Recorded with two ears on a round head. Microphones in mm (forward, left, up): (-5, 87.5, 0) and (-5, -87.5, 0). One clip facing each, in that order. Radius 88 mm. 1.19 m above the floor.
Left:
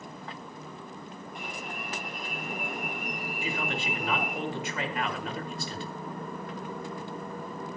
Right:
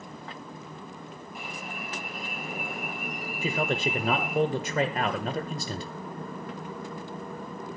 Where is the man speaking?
35° right (ahead or behind), 1.3 m.